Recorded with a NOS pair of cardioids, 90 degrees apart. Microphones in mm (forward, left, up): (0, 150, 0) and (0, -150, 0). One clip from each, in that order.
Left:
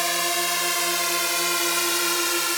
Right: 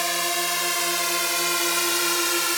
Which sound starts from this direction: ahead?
A drone, at 0.0 s.